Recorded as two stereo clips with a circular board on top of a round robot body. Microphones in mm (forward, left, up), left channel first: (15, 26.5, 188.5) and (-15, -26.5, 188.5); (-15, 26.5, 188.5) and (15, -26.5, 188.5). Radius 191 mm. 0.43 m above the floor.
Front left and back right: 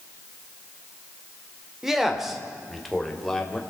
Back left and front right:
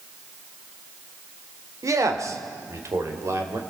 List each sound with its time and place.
1.8 s a man speaking: 40° right, 2.5 m; by 3.6 s 20° right, 3 m